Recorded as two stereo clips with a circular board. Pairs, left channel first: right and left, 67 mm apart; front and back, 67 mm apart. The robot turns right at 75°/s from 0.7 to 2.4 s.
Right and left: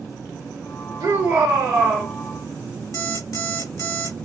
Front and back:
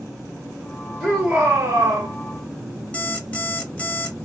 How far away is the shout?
About 0.9 m.